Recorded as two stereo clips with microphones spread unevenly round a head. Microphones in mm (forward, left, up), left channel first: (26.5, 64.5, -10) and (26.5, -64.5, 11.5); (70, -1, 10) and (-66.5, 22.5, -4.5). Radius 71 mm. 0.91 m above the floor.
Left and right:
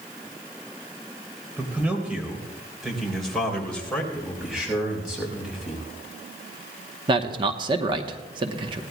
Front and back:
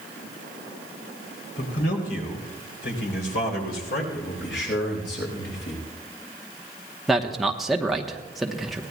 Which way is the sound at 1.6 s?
15° right.